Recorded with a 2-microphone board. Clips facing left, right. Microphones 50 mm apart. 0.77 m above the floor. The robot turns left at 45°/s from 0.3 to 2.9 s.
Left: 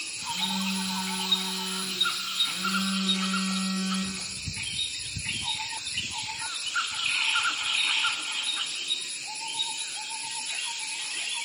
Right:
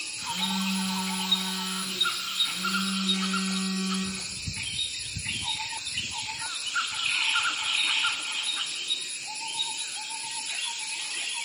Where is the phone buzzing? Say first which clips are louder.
Right 1 dB; 30° right (ahead or behind), 0.9 m; by 4.3 s 15° left (ahead or behind), 0.9 m.